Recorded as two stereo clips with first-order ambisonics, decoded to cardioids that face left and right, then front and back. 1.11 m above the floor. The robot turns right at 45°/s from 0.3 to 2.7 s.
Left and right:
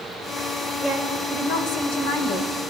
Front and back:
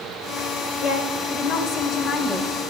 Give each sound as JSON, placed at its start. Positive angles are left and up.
{"t": 0.8, "sound": "a woman speaking", "azimuth_deg": 15, "distance_m": 5.0}